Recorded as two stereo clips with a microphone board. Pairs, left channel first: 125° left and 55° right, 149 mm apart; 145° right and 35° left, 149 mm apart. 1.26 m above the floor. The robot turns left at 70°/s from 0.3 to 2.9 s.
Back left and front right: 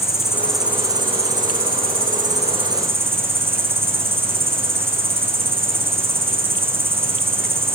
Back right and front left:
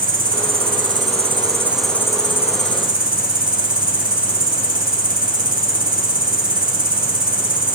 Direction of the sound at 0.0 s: 50° left.